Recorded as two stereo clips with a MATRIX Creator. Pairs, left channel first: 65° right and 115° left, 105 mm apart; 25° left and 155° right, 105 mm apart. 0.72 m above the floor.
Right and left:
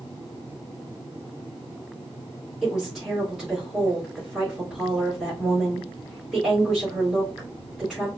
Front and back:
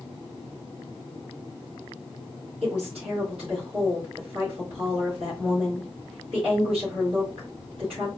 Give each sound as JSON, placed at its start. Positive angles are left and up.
{"t": 2.6, "sound": "a woman speaking", "azimuth_deg": -160, "distance_m": 2.5}